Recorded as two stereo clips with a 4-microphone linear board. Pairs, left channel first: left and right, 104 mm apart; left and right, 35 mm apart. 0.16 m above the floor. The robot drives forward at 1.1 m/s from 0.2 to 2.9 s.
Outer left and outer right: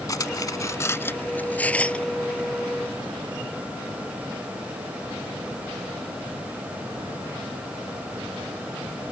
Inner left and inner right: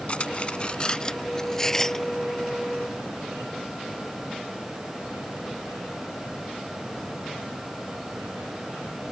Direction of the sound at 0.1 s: 35° left (ahead or behind).